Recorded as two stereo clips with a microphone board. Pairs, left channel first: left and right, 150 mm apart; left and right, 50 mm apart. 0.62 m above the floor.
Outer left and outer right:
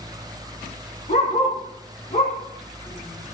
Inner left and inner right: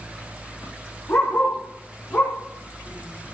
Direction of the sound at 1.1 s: 50° left (ahead or behind).